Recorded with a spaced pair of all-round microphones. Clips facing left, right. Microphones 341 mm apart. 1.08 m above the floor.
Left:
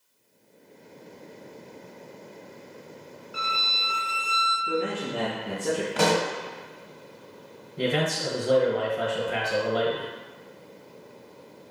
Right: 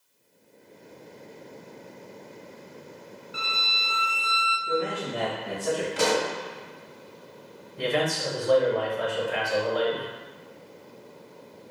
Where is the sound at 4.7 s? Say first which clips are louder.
Even; 35° left (ahead or behind), 1.4 m.